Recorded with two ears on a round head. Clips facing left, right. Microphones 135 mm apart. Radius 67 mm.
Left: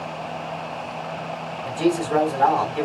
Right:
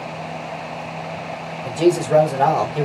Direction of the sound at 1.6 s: 45° right (ahead or behind).